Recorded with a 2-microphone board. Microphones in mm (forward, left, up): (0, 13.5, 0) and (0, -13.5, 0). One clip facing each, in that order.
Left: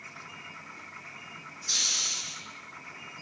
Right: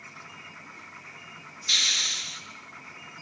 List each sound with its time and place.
1.7 s a hiss: 60° right (ahead or behind), 1.9 m